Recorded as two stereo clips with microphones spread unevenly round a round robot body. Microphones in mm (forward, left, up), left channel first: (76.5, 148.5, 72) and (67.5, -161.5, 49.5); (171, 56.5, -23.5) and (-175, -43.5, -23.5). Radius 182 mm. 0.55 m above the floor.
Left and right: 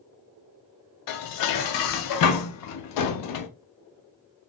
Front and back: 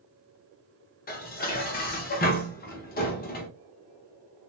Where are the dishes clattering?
80° left, 0.5 m.